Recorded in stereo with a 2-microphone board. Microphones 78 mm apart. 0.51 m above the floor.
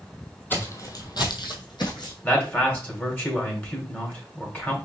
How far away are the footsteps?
About 1.2 m.